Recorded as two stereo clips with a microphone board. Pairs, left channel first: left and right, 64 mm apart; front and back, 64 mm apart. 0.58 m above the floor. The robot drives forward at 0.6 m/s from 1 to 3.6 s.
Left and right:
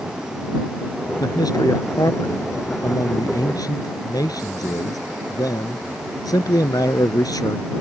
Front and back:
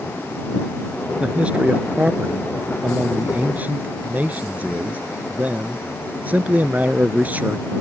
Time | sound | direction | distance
1.2 | a man speaking | 105° left | ?